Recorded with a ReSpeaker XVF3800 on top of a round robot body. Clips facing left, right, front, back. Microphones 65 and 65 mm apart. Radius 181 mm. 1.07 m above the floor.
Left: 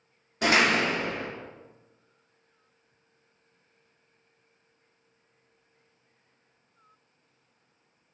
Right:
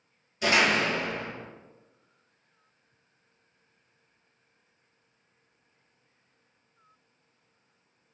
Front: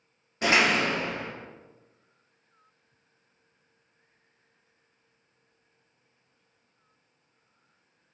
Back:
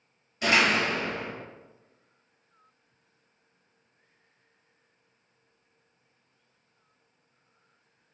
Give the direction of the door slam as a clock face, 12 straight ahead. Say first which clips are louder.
Left 1 dB, front 1 dB; 10 o'clock.